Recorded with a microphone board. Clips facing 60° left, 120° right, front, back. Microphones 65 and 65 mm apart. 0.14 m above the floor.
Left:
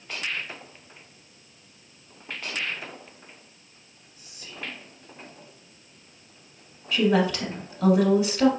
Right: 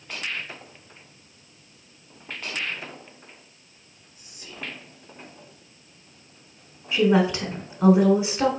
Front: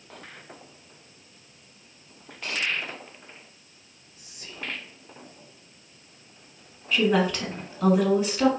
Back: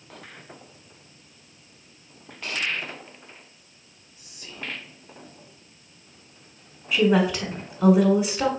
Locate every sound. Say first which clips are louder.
4.2 s whispering: right 1 dB, back 1 dB; 55° right, 2 m
6.9 s a woman speaking: right 2 dB, back 2 dB; 110° right, 1.2 m